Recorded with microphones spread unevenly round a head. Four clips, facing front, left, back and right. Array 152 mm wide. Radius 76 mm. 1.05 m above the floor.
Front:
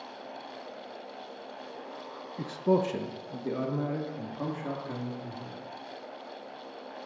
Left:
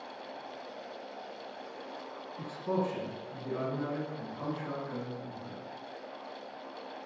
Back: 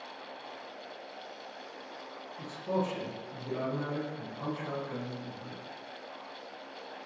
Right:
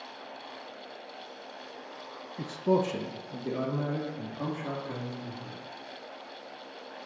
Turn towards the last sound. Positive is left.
turn(degrees=-40)